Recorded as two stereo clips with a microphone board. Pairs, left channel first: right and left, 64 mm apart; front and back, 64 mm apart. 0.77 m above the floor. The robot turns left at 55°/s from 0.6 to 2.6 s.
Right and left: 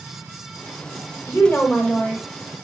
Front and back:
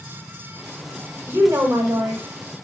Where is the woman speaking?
130° right, 1.0 m; by 2.2 s 175° left, 1.0 m.